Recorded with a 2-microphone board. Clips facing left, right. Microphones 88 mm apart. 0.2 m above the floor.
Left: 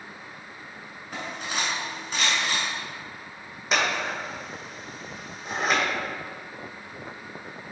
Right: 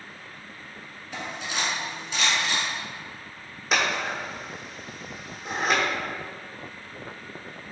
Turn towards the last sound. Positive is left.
turn(degrees=0)  # may be behind; listen again after turning